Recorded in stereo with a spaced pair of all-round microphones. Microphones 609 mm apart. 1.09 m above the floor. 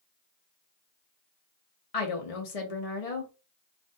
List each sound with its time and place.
1.9 s a woman speaking: 70° left (ahead or behind), 0.8 m